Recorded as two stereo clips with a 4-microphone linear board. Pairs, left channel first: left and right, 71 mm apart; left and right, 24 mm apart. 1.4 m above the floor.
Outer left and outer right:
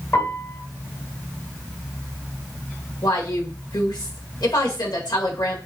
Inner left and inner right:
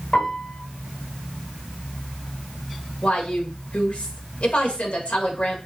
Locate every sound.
0.1 s a piano: 40° left (ahead or behind), 2 m
3.0 s a woman speaking: 75° left (ahead or behind), 1.6 m